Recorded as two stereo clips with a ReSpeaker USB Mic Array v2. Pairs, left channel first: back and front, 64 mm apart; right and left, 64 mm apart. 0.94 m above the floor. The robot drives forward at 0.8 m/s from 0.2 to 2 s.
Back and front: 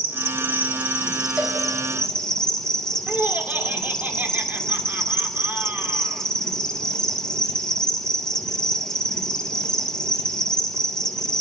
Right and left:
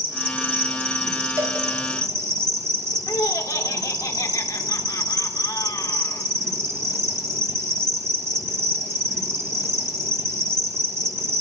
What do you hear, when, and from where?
0.0 s an insect: 45° left, 2 m; by 11.4 s 110° left, 1.7 m
1.4 s a cowbell: 65° left, 4 m; by 1.6 s 70° left, 3.5 m
3.1 s laughter: 65° right, 2 m